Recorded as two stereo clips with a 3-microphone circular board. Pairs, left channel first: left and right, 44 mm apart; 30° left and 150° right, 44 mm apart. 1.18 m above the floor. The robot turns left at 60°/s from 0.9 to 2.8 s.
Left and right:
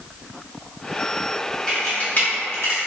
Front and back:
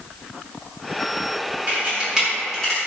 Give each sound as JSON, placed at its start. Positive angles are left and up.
{"t": 1.7, "sound": "a camera shutter", "azimuth_deg": 165, "distance_m": 1.0}